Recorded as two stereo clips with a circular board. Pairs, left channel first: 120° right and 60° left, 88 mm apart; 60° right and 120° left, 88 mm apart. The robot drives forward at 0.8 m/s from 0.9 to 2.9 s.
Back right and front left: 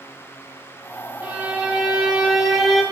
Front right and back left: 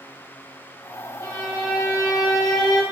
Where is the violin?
15° right, 2.5 m; by 2.8 s 30° right, 1.4 m.